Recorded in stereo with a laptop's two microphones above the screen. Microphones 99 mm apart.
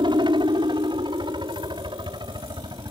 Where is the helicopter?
55° right (ahead or behind).